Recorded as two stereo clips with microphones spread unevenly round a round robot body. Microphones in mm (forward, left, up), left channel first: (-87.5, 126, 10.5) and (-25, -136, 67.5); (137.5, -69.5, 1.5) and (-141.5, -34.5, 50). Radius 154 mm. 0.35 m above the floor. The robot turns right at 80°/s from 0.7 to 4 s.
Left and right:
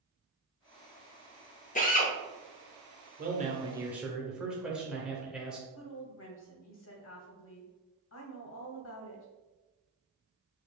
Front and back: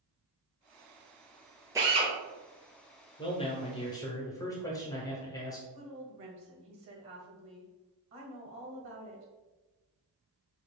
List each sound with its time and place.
1.8 s a drill: 85° left, 1.0 m; by 2.1 s 115° left, 1.0 m
3.2 s a man speaking: 35° right, 1.1 m; by 5.6 s 30° left, 1.1 m
5.7 s a woman speaking: 125° left, 1.6 m